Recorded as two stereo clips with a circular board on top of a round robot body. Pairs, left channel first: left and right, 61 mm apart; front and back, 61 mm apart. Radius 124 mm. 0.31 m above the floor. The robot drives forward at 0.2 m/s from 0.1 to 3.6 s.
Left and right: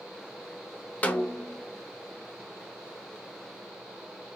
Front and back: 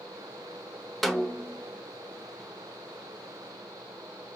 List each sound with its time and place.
1.0 s a snare drum: 85° left, 0.6 m; by 1.6 s 110° left, 0.6 m